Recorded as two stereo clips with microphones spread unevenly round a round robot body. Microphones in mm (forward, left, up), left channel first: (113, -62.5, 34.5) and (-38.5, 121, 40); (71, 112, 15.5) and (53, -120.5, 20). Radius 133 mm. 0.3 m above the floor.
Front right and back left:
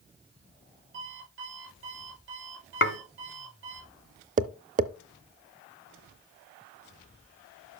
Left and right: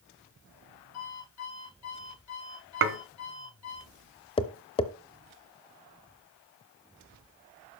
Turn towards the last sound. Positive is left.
turn(degrees=125)